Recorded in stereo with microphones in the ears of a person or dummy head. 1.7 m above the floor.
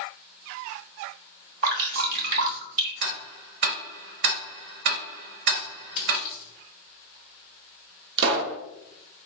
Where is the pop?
60° right (ahead or behind), 0.7 m.